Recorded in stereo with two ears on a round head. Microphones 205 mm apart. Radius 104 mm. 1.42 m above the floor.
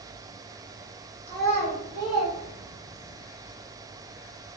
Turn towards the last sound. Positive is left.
turn(degrees=45)  # may be behind; listen again after turning